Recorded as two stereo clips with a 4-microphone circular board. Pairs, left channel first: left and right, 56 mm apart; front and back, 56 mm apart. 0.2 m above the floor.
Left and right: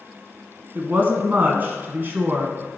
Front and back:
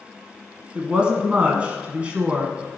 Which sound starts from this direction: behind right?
A woman speaking, at 0.8 s.